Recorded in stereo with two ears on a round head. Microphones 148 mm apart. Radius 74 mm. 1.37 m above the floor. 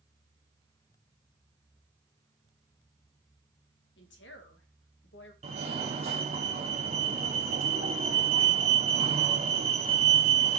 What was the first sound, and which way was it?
A woman speaking, 75° left (ahead or behind).